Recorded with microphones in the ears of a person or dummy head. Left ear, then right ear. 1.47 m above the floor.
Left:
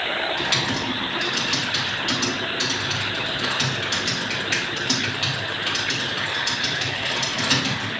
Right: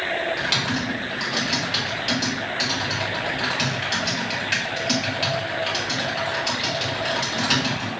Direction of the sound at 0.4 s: 5° right (ahead or behind).